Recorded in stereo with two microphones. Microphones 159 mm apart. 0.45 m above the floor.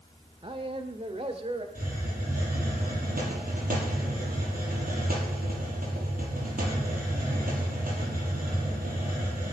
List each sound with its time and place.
0.4 s a man speaking: 35° right (ahead or behind), 1.1 m; by 1.6 s 40° right (ahead or behind), 1.7 m
1.8 s a hiss: 65° right (ahead or behind), 6 m